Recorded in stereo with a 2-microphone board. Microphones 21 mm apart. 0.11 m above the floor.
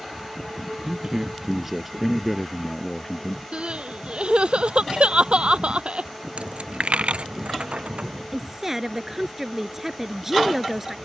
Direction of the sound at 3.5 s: 65° right (ahead or behind).